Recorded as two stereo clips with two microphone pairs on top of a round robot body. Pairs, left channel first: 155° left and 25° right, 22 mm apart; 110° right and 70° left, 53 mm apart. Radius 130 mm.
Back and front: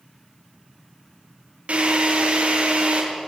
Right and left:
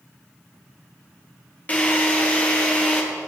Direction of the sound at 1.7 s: 50° right.